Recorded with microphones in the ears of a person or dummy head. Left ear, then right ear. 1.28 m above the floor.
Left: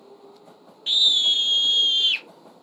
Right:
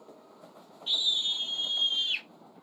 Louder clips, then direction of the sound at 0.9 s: Left 9 dB; 50° left (ahead or behind).